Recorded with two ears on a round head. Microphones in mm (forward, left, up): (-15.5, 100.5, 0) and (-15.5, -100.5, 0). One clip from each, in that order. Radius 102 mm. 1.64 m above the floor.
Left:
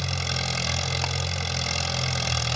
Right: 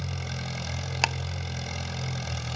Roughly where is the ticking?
Right.